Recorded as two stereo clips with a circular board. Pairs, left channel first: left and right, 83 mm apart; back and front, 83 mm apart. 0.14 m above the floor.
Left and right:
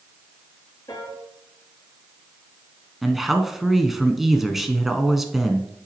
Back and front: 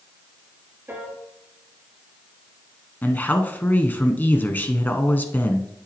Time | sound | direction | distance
0.9 | a piano | 60° left | 3 m
3.0 | a man speaking | 170° right | 1.1 m